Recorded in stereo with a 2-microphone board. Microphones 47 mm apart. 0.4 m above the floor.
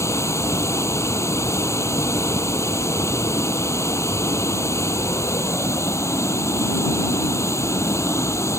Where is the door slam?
No door slam in this recording.